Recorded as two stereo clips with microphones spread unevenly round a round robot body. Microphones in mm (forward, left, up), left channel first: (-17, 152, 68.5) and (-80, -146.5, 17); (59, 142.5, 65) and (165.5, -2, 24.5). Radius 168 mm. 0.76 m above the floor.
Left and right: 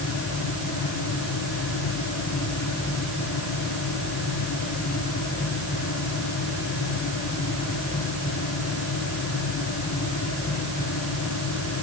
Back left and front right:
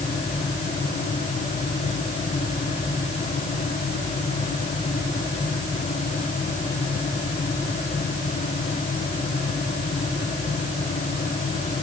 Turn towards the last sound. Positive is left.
No sound to turn to.